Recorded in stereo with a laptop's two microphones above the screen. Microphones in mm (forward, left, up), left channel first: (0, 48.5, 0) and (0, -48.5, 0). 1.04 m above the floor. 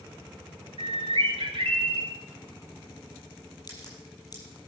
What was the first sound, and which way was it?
A bird, 65° right (ahead or behind).